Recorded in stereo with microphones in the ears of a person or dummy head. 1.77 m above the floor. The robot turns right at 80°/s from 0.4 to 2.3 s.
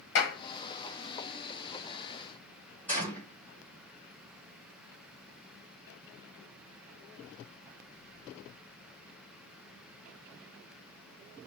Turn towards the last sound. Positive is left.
turn(degrees=10)  # may be behind; listen again after turning